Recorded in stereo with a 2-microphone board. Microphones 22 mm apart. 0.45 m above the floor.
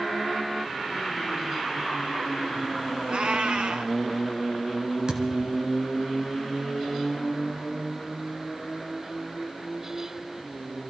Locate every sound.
3.1 s a cat meowing: 70° right (ahead or behind), 2.5 m
5.1 s a thud: 40° right (ahead or behind), 2.5 m